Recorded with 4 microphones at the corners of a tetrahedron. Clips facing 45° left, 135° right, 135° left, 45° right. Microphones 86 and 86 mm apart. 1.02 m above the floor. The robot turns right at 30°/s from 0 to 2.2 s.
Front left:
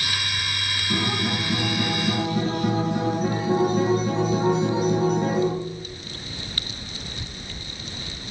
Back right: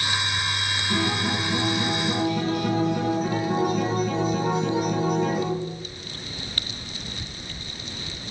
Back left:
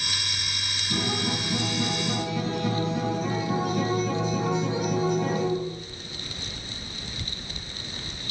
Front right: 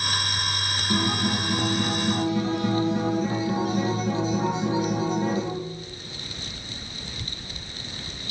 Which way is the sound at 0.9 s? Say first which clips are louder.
Even, front right 3 dB; 30° right.